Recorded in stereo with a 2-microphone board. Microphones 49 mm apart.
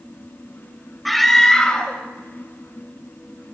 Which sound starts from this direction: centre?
A scream, at 1.1 s.